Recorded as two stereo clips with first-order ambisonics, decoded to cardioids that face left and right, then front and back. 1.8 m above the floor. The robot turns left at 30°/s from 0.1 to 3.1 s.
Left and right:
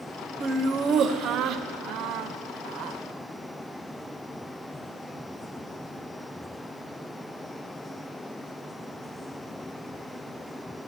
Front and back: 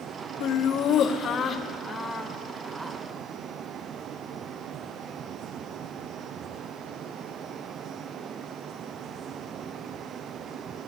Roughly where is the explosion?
No explosion in this recording.